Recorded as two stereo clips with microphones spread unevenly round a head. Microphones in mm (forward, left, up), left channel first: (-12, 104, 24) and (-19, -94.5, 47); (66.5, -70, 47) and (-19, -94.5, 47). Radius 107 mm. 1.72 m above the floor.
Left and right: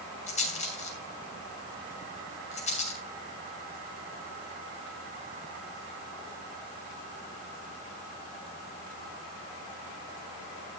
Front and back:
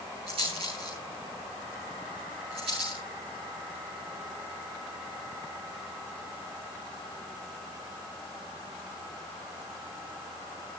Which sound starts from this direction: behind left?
A rattle, at 0.3 s.